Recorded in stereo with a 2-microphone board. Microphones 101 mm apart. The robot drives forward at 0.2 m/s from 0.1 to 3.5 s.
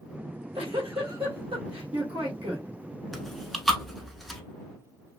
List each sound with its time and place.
0.2 s a giggle: 80° right, 1.3 m; by 2.7 s 75° right (ahead or behind), 1.3 m
3.1 s chewing: centre (ahead or behind), 0.6 m